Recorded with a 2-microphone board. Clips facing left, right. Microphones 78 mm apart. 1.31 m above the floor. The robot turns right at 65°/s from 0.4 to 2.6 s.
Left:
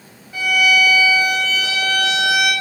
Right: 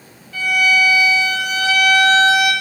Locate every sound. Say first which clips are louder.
0.3 s a violin: even; 160° left, 0.6 m; by 2.5 s 65° right, 0.6 m